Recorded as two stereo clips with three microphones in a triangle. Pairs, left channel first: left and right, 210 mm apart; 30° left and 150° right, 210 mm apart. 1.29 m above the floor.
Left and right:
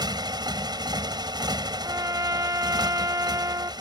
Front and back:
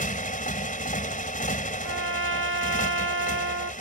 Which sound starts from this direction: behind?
A trumpet, at 1.8 s.